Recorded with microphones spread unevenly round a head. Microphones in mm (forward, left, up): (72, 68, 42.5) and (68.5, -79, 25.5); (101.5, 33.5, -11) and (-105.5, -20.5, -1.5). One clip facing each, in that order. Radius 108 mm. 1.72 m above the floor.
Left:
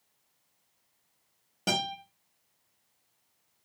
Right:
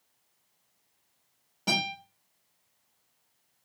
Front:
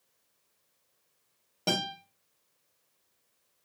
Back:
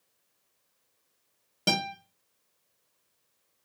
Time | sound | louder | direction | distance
1.7 | a guitar | left 1 dB, back 1 dB | 130° left | 0.8 m